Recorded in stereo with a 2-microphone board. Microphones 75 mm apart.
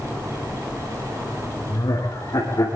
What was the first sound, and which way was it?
Laughter, 55° left (ahead or behind).